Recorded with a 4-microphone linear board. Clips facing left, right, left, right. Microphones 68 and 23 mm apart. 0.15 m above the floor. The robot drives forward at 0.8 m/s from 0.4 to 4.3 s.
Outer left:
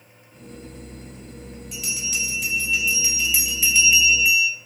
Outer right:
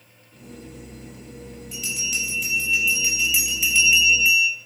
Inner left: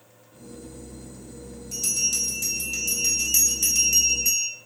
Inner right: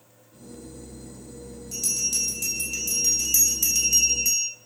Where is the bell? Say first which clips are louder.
Outer right 1 dB, inner left 1 dB; centre (ahead or behind), 4.5 m; by 4.5 s 5° left (ahead or behind), 2.5 m.